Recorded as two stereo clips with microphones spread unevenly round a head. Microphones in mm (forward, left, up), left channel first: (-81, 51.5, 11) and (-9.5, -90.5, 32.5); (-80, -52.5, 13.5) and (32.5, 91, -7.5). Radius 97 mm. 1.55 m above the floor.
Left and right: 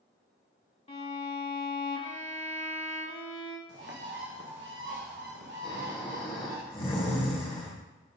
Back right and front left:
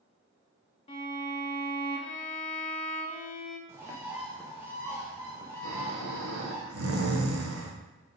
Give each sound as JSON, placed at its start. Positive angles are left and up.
{"t": 0.9, "sound": "a violin", "azimuth_deg": 170, "distance_m": 1.2}
{"t": 3.7, "sound": "a bird", "azimuth_deg": -25, "distance_m": 1.1}
{"t": 5.6, "sound": "snoring", "azimuth_deg": 50, "distance_m": 1.3}